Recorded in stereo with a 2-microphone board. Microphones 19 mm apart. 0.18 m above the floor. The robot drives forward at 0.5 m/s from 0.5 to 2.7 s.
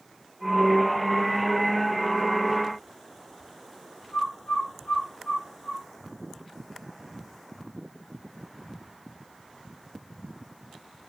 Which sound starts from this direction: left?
A bird, at 4.1 s.